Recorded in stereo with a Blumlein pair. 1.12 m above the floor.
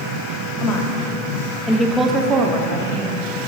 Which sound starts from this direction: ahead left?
A woman speaking, at 0.6 s.